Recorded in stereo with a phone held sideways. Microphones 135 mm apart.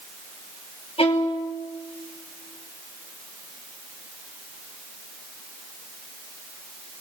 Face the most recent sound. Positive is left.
turn(degrees=45)  # may be behind; listen again after turning